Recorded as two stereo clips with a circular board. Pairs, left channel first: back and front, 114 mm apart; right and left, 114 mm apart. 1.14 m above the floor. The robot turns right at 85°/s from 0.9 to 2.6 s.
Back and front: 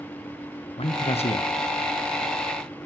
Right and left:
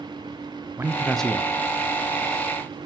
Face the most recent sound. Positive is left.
turn(degrees=-55)